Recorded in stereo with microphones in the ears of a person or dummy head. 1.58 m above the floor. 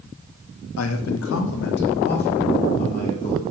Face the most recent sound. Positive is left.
turn(degrees=40)  # may be behind; listen again after turning